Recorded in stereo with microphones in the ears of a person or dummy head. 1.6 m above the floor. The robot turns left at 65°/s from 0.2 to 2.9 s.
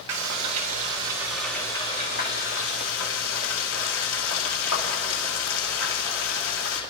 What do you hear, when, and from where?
0.1 s frying: 100° right, 2 m; by 6.8 s 85° left, 2 m